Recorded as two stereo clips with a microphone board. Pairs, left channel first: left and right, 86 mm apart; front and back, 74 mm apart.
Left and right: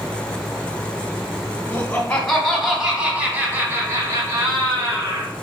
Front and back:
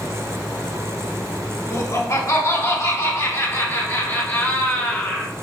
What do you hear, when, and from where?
1.7 s laughter: 25° left, 1.9 m; by 5.3 s 75° right, 3 m